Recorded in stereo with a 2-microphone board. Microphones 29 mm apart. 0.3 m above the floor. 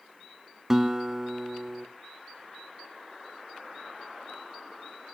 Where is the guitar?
15° right (ahead or behind), 0.9 m.